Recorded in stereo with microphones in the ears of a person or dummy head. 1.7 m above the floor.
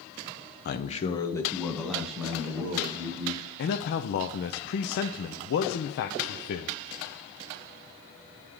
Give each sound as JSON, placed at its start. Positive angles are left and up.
{"t": 0.7, "sound": "a man speaking", "side_deg": 50, "distance_m": 0.7}
{"t": 3.6, "sound": "a man speaking", "side_deg": 60, "distance_m": 0.6}